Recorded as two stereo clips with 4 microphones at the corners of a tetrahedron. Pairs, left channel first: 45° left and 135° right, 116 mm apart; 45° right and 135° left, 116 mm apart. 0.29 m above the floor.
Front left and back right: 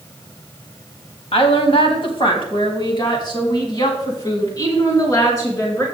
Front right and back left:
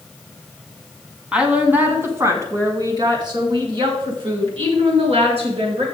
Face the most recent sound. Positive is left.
turn(degrees=110)